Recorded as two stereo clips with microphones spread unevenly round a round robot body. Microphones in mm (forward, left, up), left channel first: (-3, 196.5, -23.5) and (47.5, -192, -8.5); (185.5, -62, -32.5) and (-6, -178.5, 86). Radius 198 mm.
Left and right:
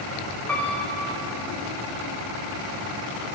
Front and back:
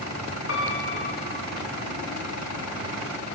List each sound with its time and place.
0.5 s a piano: 10° left, 8.5 m